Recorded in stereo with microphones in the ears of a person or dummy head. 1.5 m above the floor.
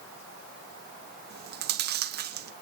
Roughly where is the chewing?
Right.